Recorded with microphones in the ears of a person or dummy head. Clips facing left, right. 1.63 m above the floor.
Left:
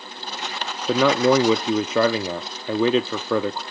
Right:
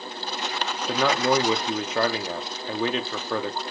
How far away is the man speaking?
About 0.6 m.